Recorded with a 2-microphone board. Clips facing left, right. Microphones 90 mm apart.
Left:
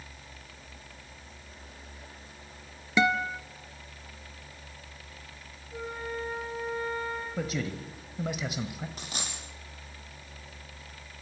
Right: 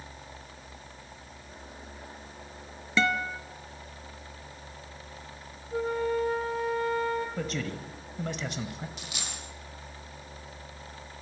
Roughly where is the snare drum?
I don't hear a snare drum.